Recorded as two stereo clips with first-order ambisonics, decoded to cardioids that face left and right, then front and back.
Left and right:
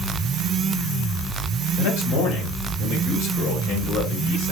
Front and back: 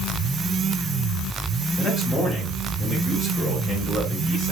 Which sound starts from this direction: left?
A man speaking, at 1.8 s.